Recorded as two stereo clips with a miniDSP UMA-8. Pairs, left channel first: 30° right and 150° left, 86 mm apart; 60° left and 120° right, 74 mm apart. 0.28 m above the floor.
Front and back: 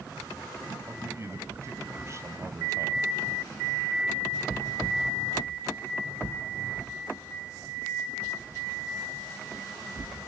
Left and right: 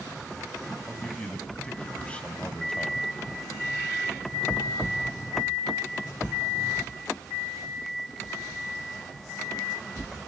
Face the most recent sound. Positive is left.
turn(degrees=125)